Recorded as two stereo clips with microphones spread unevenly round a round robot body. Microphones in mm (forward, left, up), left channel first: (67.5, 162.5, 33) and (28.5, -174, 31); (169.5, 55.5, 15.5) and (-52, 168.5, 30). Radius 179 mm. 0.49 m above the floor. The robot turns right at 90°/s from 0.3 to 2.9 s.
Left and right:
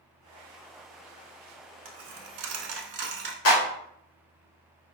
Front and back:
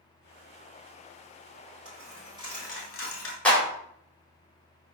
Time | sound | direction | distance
1.9 | a dropped coin | 145° right | 0.5 m
3.5 | a clap | 55° left | 1.4 m